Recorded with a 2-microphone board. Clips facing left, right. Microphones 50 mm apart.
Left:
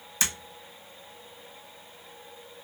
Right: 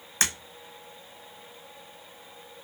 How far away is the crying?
No crying in this recording.